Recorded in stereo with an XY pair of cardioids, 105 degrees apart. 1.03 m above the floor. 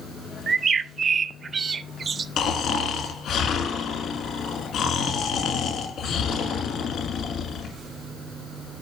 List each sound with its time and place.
0.5 s a bird: 45° right, 0.5 m
2.4 s snoring: 70° left, 1.8 m